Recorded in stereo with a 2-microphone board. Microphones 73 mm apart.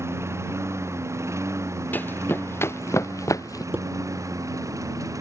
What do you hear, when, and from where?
0.0 s a lawn mower: 40° right (ahead or behind); by 5.2 s 50° right (ahead or behind)
1.9 s running footsteps: 25° left (ahead or behind); by 3.6 s 50° left (ahead or behind)
3.7 s dishes clattering: 30° right (ahead or behind)